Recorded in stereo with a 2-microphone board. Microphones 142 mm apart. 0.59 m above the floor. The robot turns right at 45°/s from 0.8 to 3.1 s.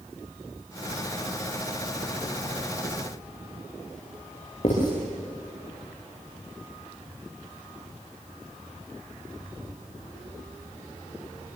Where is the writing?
50° left (ahead or behind), 10 m.